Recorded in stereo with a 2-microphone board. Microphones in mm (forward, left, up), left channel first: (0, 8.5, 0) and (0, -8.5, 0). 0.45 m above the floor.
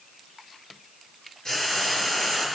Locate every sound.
1.4 s frying: 45° left (ahead or behind), 8 m